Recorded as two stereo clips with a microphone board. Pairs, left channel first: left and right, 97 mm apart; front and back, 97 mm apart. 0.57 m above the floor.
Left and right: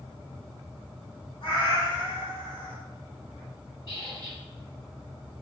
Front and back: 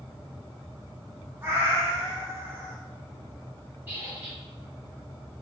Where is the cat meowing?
115° left, 1.1 m.